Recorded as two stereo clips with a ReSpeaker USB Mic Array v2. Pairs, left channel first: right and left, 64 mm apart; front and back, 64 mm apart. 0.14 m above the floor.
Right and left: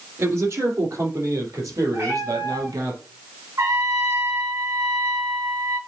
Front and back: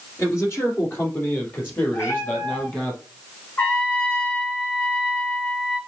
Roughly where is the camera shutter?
No camera shutter in this recording.